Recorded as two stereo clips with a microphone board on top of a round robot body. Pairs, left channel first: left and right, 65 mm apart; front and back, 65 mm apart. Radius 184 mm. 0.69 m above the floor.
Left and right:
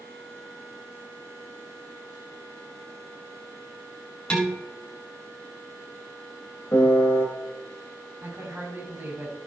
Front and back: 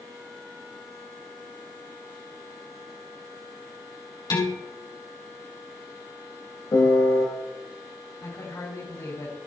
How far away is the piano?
About 2 m.